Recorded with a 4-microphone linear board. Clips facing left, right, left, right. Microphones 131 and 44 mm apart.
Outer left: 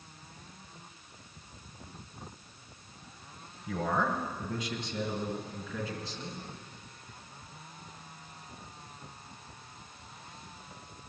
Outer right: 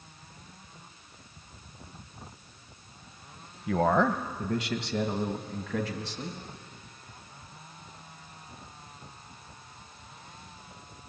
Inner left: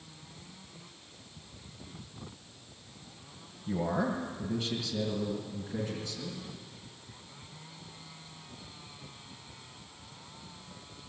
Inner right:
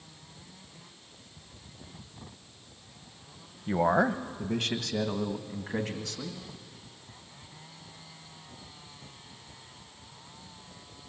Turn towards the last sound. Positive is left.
turn(degrees=-80)